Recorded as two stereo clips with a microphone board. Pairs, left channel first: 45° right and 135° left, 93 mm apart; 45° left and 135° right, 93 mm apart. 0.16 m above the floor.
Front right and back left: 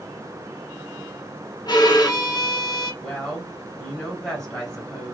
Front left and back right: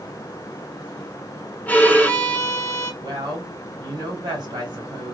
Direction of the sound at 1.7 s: 20° right.